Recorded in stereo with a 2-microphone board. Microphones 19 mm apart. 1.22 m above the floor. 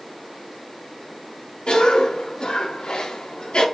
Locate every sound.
1.7 s a cough: 55° left (ahead or behind), 3.5 m